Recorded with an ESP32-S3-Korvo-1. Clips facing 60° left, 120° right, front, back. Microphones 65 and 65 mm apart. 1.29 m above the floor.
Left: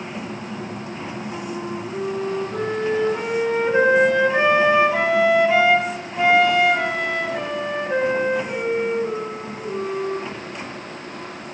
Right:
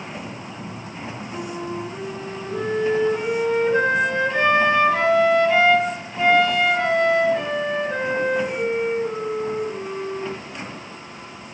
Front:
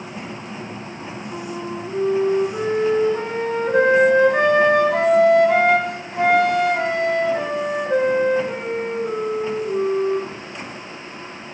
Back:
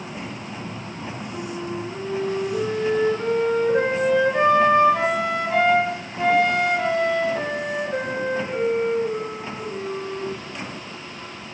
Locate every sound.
1.3 s a flute: 15° right, 4 m